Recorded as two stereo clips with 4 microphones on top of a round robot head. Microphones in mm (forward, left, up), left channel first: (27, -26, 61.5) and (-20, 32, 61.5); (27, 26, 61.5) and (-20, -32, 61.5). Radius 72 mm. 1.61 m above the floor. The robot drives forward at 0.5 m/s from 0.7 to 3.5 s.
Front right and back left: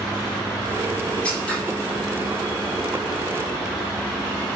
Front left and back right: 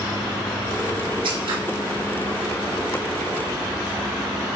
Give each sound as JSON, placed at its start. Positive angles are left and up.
{"t": 1.2, "sound": "scissors", "azimuth_deg": -125, "distance_m": 4.0}